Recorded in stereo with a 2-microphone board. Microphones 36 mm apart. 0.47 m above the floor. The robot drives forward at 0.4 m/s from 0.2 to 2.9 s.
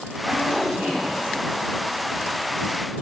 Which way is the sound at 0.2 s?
40° right (ahead or behind).